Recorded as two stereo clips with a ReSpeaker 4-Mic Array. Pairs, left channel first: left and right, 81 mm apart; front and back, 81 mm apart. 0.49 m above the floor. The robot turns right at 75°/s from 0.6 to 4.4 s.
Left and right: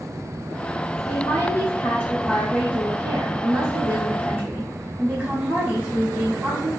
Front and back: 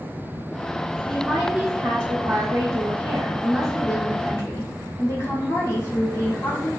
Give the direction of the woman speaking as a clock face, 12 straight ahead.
9 o'clock.